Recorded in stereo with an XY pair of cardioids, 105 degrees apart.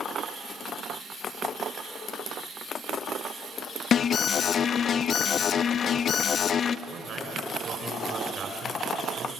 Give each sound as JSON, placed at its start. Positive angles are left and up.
{"t": 3.9, "sound": "an alarm", "azimuth_deg": 55, "distance_m": 0.7}
{"t": 6.9, "sound": "a man speaking", "azimuth_deg": -55, "distance_m": 6.0}